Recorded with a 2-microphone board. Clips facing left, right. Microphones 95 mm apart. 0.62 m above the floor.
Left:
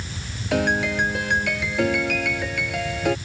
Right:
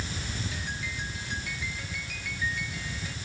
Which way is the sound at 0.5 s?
65° left (ahead or behind).